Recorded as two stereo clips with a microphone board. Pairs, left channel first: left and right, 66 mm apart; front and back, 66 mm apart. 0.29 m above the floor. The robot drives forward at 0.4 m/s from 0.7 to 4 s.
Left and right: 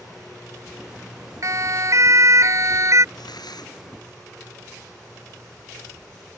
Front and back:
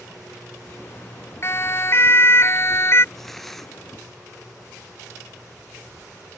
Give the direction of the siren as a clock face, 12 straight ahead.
2 o'clock.